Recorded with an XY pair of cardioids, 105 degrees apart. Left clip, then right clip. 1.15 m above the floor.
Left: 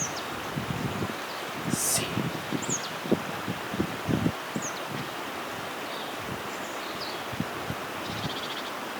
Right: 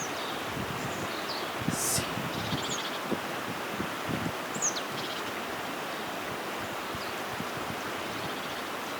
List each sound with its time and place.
1.7 s whispering: 35° left, 2 m